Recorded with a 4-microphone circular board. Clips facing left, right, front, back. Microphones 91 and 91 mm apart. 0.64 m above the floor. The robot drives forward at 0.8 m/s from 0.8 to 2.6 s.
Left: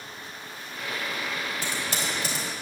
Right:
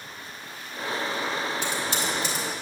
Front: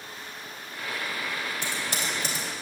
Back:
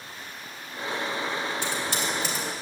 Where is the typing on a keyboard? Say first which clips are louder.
Right 3 dB, back 3 dB; 40° left, 3 m; by 2.5 s 50° left, 2.5 m.